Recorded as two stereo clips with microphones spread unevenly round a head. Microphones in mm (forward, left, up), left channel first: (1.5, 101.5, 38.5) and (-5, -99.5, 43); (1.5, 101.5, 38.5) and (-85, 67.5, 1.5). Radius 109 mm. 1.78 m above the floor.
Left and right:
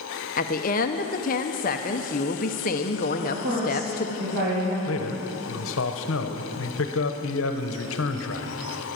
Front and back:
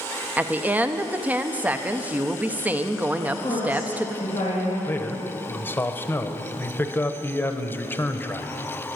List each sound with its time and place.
0.4 s a woman speaking: 105° left, 0.7 m
3.2 s a woman speaking: 50° right, 3.5 m
4.9 s a man speaking: 70° left, 1.0 m